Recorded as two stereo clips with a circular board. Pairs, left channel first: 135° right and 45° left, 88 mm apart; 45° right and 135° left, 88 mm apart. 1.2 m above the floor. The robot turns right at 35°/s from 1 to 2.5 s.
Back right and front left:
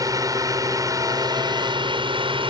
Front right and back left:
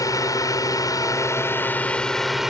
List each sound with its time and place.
0.0 s a drone: straight ahead; by 2.5 s 50° left